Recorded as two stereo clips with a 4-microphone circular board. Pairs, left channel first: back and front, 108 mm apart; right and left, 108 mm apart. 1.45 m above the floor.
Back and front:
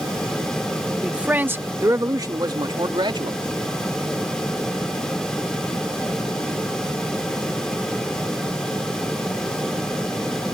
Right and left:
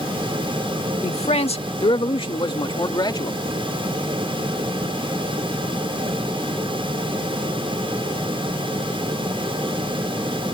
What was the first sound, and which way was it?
A man speaking, 85° right.